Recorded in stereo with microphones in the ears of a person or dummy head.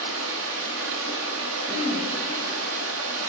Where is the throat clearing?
20° right (ahead or behind), 1.4 m.